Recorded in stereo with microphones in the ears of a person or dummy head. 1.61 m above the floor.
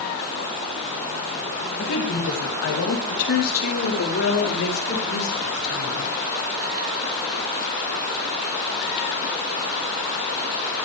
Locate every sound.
1.8 s a woman speaking: 60° left (ahead or behind), 2.5 m; by 6.1 s 80° left, 6 m